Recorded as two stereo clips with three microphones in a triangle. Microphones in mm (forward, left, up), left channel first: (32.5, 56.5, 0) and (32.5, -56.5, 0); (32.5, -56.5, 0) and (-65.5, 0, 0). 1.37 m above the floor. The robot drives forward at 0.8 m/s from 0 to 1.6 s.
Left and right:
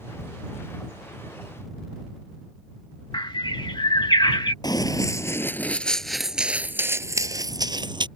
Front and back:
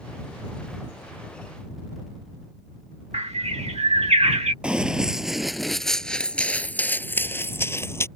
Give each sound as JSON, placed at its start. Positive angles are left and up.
{"t": 3.1, "sound": "a bird", "azimuth_deg": 135}
{"t": 4.6, "sound": "running footsteps", "azimuth_deg": 75}